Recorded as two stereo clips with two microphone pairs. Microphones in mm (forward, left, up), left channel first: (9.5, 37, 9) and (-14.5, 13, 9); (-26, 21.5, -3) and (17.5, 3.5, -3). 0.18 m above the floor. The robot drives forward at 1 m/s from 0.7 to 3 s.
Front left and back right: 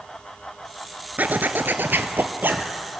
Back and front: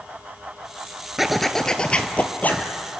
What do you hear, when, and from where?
1.2 s a zipper: 105° right, 1.1 m; by 2.7 s 150° right, 2 m